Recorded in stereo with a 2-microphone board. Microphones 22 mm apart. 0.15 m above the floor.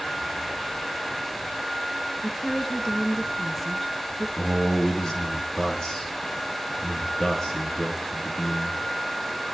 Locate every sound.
2.2 s a woman speaking: 10° left (ahead or behind), 2.5 m
4.4 s a man speaking: 30° left (ahead or behind), 4 m